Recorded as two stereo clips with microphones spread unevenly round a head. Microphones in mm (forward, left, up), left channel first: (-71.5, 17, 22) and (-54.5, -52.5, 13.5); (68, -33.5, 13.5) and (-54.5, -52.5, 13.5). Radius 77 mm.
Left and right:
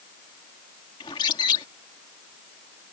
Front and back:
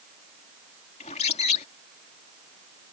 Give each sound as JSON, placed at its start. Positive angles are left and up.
{"t": 1.0, "sound": "a bird", "azimuth_deg": 60}